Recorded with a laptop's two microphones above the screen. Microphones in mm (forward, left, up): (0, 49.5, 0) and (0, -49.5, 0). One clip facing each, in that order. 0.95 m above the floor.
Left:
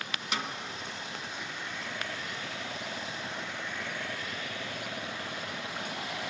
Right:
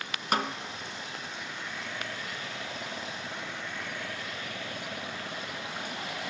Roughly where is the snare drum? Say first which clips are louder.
Right 7 dB; right.